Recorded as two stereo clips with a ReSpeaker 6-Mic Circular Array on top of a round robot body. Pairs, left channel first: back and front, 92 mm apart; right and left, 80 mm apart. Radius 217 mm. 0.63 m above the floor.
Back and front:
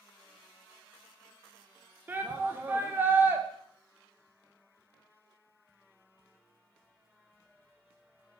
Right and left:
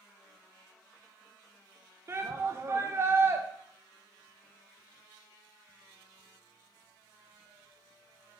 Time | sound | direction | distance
2.1 | a shout | 60° left | 0.6 m